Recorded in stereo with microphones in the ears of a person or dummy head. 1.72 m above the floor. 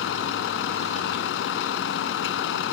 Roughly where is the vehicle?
Left.